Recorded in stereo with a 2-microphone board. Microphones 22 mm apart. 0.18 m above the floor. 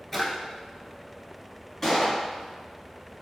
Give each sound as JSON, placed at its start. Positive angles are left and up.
{"t": 0.1, "sound": "a drawer", "side_deg": 0, "distance_m": 0.8}
{"t": 1.8, "sound": "a gunshot", "side_deg": 5, "distance_m": 1.6}